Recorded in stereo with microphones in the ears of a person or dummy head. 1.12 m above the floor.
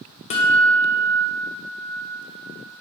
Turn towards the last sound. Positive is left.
turn(degrees=30)  # may be behind; listen again after turning